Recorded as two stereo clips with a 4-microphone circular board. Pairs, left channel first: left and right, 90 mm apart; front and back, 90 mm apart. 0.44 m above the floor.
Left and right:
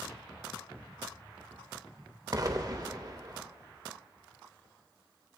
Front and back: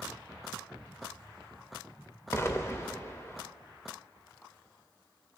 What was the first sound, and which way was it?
An explosion, 55° right.